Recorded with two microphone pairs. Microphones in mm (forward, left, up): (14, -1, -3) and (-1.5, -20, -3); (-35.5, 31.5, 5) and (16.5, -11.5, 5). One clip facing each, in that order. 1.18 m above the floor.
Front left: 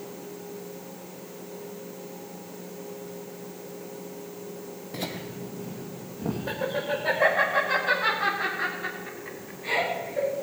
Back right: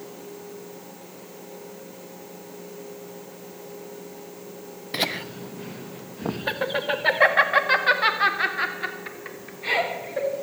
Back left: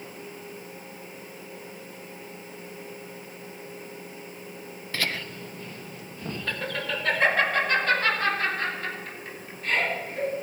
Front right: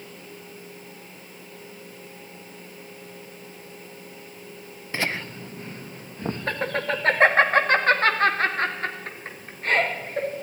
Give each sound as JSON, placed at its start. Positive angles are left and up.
{"t": 4.9, "sound": "laughter", "azimuth_deg": -110, "distance_m": 0.7}